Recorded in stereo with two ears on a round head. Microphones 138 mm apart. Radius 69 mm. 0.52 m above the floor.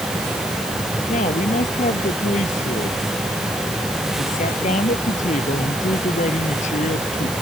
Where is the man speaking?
50° left (ahead or behind).